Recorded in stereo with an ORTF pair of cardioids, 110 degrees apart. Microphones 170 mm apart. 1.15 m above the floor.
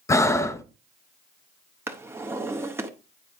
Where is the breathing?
20° left, 0.8 m.